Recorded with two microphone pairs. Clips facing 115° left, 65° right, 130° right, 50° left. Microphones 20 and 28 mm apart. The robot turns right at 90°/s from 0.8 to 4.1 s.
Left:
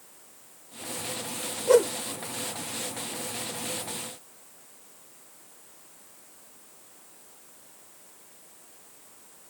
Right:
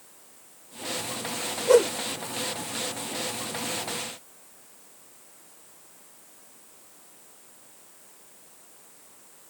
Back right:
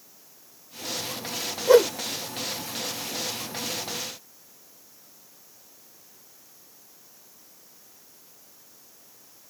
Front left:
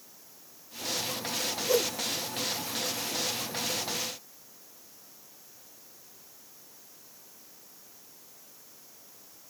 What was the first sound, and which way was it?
A whoosh, 155° right.